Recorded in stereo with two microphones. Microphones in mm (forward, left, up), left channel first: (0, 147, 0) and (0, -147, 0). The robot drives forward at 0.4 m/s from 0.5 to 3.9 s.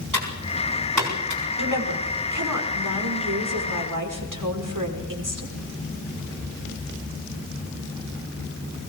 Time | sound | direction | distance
0.1 | typing on a keyboard | 75° right (ahead or behind) | 7.5 m
1.6 | a woman speaking | 85° right | 5.5 m